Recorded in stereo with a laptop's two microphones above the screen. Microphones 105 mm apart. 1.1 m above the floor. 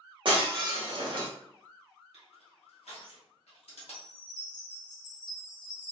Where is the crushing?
85° left, 1.2 m.